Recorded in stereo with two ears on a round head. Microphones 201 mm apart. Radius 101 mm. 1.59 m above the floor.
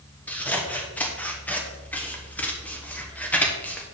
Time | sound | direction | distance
0.3 | scissors | 5° left (ahead or behind) | 1.2 m